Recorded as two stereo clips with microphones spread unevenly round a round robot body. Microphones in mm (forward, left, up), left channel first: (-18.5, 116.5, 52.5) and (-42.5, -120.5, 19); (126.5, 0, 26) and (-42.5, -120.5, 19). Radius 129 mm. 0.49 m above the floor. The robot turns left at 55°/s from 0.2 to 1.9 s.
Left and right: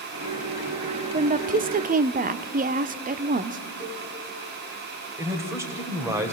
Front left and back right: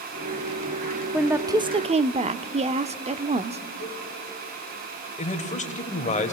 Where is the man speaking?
20° right, 2 m.